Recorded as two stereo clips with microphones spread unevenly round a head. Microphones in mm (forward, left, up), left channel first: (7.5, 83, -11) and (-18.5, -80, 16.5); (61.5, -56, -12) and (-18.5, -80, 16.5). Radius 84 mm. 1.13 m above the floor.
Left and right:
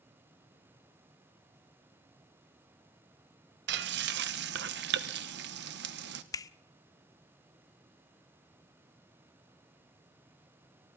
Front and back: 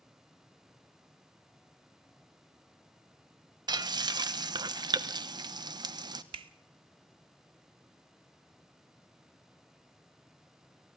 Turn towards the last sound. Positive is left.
turn(degrees=155)